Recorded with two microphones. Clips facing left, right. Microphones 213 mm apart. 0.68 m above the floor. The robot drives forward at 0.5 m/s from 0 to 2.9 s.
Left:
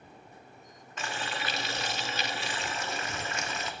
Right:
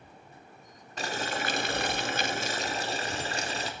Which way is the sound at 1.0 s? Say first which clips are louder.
Right 4 dB; 35° right (ahead or behind).